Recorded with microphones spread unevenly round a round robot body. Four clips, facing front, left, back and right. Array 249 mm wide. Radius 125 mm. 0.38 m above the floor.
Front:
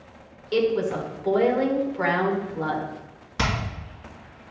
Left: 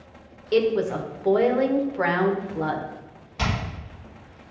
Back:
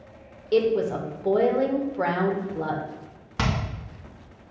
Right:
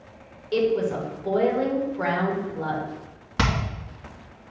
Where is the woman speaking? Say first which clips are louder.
Left 1 dB, back 1 dB; 130° left, 1.1 m.